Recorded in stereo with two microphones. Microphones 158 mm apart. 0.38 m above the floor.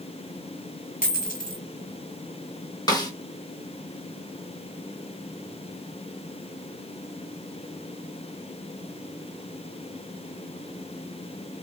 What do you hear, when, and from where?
1.0 s a dropped coin: 70° left (ahead or behind), 1.2 m
2.9 s a snare drum: 25° left (ahead or behind), 0.9 m